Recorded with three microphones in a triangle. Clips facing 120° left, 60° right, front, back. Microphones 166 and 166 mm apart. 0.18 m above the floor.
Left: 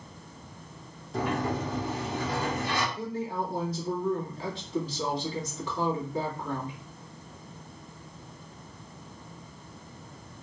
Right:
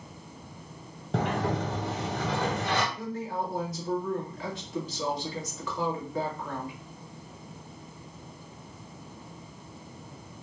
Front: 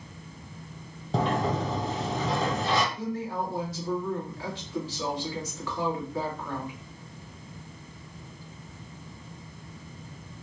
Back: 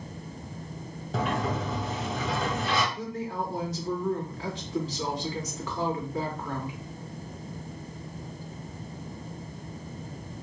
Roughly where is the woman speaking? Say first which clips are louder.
Left 1 dB, front 1 dB; behind left.